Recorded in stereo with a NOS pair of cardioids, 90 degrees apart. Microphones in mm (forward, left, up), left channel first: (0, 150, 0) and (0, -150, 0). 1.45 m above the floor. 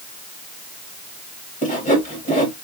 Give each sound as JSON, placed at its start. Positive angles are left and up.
{"t": 1.6, "sound": "sawing", "azimuth_deg": 25, "distance_m": 2.0}